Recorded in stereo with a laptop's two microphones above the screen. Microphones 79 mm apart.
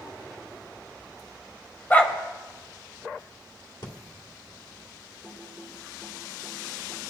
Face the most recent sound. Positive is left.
turn(degrees=0)  # may be behind; listen again after turning